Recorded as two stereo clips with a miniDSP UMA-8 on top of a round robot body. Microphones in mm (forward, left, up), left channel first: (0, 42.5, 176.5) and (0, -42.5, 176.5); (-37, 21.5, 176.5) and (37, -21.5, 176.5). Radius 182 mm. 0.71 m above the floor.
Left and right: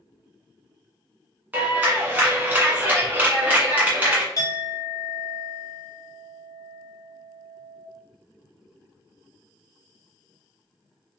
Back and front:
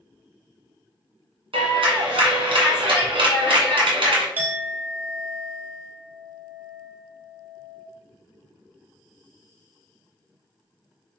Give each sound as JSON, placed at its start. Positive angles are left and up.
{"t": 1.5, "sound": "a clap", "azimuth_deg": -20, "distance_m": 1.6}
{"t": 4.4, "sound": "a clink", "azimuth_deg": 40, "distance_m": 1.2}